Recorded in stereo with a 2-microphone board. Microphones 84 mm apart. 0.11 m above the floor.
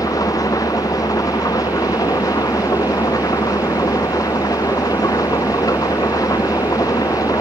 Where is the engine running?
45° left (ahead or behind).